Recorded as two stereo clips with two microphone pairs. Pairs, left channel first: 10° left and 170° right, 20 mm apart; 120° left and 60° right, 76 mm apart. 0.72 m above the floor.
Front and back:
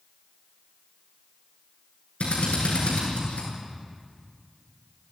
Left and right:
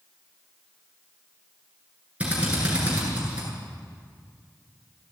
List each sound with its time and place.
2.2 s a drill: 15° left, 9.5 m